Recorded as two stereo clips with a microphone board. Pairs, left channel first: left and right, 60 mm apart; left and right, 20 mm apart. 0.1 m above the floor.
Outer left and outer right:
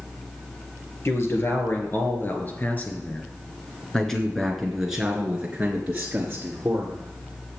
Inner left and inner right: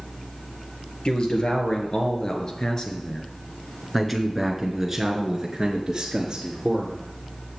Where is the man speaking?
45° left (ahead or behind), 2.5 m; by 7.0 s 35° right (ahead or behind), 2 m.